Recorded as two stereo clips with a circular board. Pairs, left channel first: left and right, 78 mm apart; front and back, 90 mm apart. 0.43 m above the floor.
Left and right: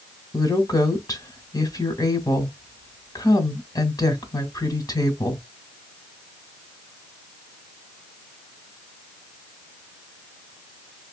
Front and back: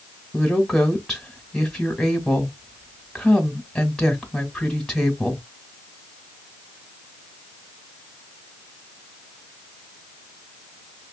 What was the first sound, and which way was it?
A woman speaking, 85° left.